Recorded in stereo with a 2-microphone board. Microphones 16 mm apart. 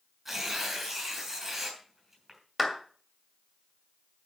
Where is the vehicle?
I don't hear a vehicle.